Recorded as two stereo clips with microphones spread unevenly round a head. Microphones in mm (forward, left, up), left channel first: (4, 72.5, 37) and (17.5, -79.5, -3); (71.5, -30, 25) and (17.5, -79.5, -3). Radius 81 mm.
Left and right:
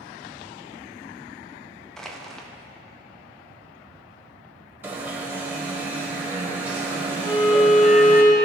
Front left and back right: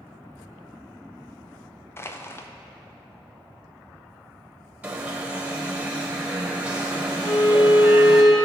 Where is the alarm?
135° right, 1.3 m.